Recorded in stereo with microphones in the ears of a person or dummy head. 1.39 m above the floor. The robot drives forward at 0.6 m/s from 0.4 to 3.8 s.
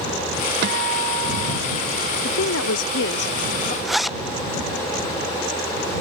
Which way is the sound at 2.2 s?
60° left (ahead or behind).